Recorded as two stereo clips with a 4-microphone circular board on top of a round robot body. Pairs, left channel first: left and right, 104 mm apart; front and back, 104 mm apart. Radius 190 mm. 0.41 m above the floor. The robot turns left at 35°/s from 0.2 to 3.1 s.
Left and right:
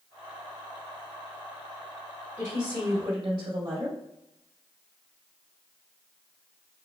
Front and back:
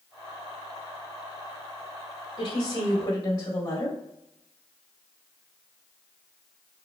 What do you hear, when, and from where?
2.4 s a woman speaking: 15° right, 2 m; by 4.0 s 45° right, 2 m